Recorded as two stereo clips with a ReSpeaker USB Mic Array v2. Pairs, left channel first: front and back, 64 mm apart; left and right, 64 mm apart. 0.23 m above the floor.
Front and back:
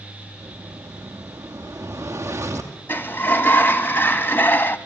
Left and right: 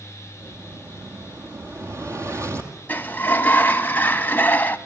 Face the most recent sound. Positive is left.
turn(degrees=40)